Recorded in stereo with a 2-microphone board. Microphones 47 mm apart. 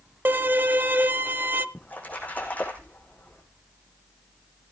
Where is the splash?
35° left (ahead or behind), 5.5 m.